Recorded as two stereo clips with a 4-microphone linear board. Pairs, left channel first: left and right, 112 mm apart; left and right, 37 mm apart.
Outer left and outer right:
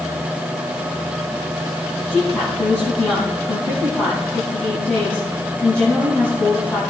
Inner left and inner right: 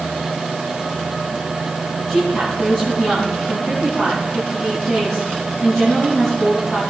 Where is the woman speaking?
15° left (ahead or behind), 4.5 m.